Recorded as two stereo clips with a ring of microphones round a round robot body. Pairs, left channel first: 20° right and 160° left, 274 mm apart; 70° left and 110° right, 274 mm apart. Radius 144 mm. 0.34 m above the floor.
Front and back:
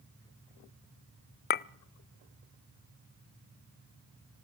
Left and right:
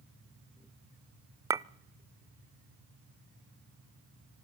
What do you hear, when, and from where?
1.5 s a clink: 40° right, 0.5 m